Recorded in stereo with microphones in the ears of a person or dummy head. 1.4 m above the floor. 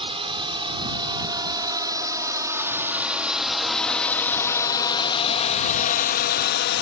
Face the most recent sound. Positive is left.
turn(degrees=60)  # may be behind; listen again after turning